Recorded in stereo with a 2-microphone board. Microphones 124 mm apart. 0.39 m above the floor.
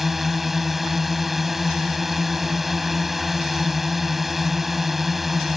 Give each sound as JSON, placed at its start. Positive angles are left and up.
{"t": 0.0, "sound": "a drone", "side_deg": 0}